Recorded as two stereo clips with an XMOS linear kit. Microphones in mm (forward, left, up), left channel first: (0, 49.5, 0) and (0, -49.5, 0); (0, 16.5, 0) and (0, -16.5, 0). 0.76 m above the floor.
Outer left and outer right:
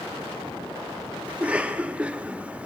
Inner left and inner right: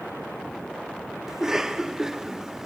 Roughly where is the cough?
Centre.